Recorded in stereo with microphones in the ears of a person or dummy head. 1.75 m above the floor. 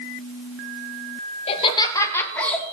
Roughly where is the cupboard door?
No cupboard door in this recording.